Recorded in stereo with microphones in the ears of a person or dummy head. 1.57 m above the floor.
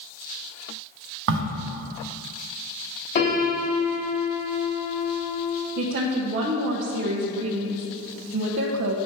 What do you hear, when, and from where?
1.3 s a crack: 70° right (ahead or behind), 0.9 m
3.1 s a piano: 55° left (ahead or behind), 3 m
5.8 s a woman speaking: 50° right (ahead or behind), 0.7 m